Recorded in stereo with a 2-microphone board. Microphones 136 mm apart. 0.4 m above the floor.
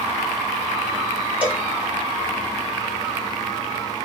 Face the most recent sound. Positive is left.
turn(degrees=-15)  # may be behind; listen again after turning